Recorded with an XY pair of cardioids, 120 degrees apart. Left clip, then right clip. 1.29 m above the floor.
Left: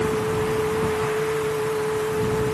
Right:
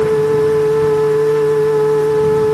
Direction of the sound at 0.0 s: 60° right.